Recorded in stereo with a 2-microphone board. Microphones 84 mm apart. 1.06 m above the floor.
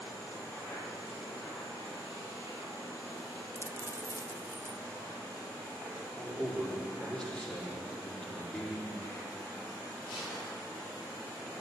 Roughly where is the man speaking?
Centre.